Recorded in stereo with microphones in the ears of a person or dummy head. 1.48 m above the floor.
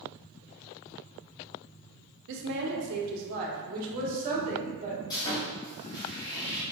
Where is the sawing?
20° left (ahead or behind), 1.9 m.